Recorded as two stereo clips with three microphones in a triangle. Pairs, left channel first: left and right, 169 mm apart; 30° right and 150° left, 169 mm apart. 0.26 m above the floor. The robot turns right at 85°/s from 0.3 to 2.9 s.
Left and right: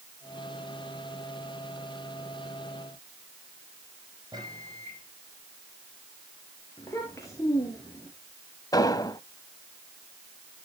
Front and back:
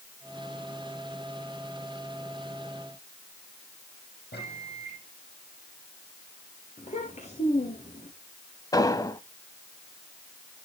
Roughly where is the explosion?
Ahead left.